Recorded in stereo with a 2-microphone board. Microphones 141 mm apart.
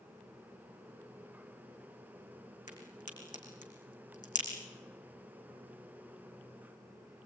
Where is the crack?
60° left (ahead or behind), 5.5 m.